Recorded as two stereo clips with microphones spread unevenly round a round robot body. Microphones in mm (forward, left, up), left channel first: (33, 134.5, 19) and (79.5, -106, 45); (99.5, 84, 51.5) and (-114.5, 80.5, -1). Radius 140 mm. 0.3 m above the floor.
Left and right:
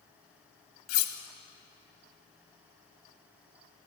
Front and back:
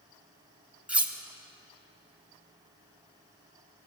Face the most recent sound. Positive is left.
turn(degrees=105)